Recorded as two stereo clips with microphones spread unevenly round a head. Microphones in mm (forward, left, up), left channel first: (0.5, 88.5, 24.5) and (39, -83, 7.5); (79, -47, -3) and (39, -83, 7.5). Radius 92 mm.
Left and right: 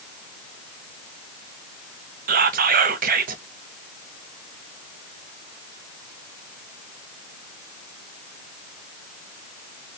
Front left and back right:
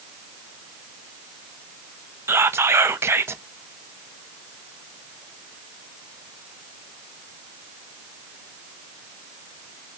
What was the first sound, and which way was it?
Whispering, 95° right.